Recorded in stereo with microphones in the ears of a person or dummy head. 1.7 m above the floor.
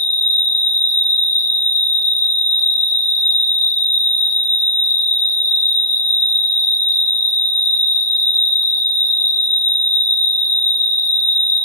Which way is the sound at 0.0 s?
10° left (ahead or behind).